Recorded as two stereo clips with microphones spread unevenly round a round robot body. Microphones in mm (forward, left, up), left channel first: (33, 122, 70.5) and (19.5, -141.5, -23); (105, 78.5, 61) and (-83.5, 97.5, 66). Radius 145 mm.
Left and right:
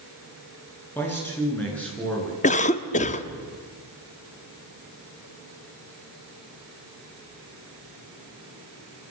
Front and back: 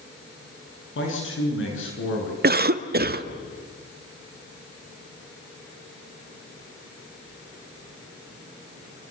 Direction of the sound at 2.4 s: 160° left.